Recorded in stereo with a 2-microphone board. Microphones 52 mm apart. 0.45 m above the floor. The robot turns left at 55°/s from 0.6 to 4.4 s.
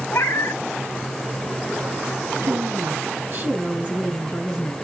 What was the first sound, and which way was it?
A cat meowing, 65° left (ahead or behind).